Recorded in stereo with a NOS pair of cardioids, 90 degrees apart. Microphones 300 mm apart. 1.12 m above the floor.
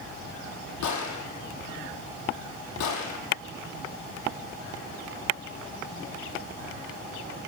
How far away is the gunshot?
About 8 m.